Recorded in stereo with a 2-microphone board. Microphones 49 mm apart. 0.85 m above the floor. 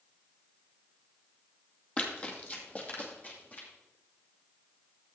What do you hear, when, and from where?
2.0 s running footsteps: 25° left (ahead or behind), 1.7 m; by 3.7 s 40° left (ahead or behind), 3 m